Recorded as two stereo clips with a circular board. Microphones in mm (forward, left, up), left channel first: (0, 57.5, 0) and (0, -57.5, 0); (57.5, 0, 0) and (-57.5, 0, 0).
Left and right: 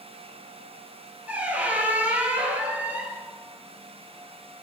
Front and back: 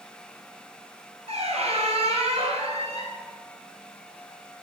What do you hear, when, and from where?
1.3 s a squeak: 165° right, 1.2 m